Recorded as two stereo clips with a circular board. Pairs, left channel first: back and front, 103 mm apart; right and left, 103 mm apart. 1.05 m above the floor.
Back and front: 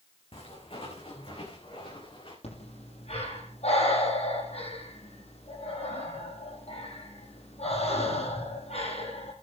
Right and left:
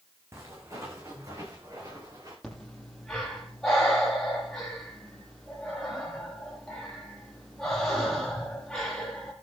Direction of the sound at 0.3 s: 155° left.